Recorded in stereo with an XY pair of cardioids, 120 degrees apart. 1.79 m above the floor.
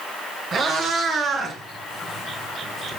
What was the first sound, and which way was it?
A cat meowing, 50° right.